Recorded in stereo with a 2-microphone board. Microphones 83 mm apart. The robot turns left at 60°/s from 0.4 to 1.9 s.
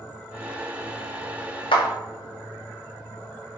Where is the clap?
75° left (ahead or behind), 0.8 m; by 1.9 s 70° left (ahead or behind), 0.8 m.